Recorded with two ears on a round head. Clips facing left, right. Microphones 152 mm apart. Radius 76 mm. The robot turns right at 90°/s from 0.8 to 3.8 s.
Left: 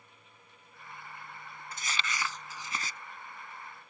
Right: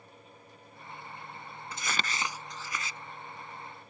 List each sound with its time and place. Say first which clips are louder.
1.7 s crumpling: right 2 dB; 65° right; by 3.0 s 50° left